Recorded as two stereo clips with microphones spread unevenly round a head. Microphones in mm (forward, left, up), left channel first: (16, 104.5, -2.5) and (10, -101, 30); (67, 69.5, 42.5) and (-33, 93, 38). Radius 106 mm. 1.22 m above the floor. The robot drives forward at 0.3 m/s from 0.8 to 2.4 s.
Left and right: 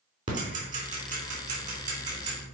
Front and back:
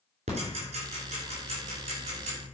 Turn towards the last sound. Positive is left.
turn(degrees=-150)